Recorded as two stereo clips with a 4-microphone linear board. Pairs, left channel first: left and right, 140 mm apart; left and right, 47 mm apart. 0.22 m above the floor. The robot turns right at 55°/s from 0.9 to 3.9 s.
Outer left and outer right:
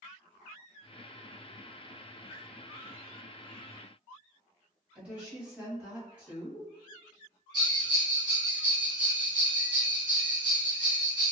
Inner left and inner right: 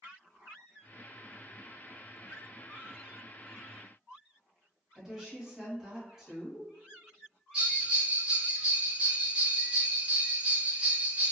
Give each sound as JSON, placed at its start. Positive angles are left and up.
{"t": 5.0, "sound": "a woman speaking", "side_deg": -10, "distance_m": 1.2}
{"t": 7.5, "sound": "a bell", "side_deg": -25, "distance_m": 1.7}